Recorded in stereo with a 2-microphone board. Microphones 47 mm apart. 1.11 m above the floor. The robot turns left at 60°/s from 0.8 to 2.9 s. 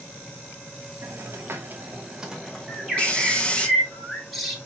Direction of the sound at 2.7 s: 10° right (ahead or behind).